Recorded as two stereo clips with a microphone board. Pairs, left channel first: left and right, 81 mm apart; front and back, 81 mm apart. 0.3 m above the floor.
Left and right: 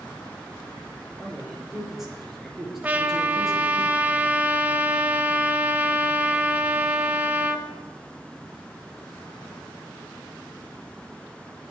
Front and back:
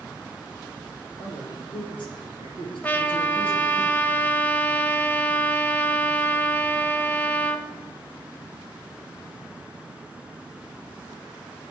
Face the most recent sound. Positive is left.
turn(degrees=-45)